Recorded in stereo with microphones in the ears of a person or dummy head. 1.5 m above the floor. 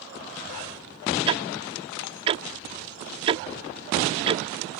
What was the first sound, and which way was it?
Ticking, 25° right (ahead or behind).